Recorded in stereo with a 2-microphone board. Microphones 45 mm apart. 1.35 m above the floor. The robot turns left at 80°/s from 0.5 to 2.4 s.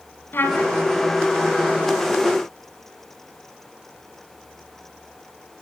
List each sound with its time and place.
0.3 s a trumpet: 55° left (ahead or behind), 1.8 m; by 0.7 s 50° left (ahead or behind), 1.8 m